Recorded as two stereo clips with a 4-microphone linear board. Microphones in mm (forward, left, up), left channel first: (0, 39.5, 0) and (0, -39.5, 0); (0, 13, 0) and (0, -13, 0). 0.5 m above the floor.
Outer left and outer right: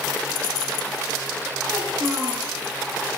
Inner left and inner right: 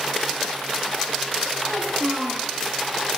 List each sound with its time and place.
1.7 s a child speaking: 65° right (ahead or behind), 1.7 m